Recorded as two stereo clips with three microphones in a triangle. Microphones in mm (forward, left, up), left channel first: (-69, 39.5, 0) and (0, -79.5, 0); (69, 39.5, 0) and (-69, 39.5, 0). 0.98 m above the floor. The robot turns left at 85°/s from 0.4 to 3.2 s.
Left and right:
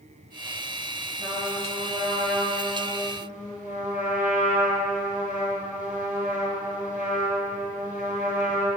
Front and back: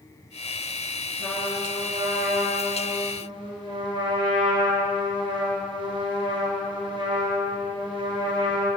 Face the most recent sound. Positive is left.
turn(degrees=130)